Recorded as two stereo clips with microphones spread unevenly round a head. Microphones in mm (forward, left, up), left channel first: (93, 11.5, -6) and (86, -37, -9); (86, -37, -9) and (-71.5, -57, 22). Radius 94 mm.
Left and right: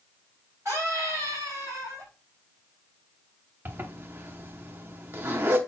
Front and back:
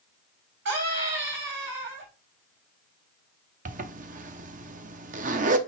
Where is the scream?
170° right, 5.5 m.